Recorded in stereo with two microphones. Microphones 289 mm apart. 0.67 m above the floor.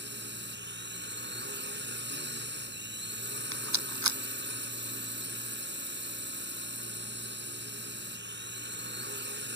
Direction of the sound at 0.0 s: 40° right (ahead or behind).